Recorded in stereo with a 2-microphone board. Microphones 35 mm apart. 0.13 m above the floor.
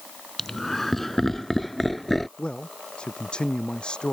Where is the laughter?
10° left (ahead or behind); by 2.3 s 5° left (ahead or behind).